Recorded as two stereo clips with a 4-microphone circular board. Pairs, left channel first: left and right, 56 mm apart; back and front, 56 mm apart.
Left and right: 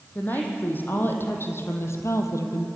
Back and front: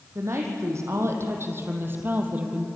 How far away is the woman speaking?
About 6 m.